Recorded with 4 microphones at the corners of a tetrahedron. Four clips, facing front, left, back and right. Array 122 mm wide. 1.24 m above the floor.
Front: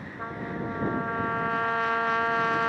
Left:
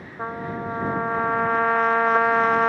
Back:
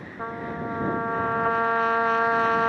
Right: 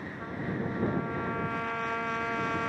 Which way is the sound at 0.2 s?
110° left.